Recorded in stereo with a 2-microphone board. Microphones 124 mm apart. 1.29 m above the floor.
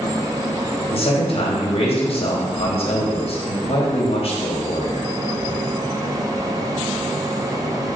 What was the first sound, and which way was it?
A man speaking, 50° left (ahead or behind).